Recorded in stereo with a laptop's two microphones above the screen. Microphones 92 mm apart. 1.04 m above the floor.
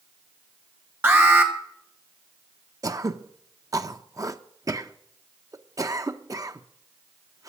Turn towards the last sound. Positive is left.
turn(degrees=-40)  # may be behind; listen again after turning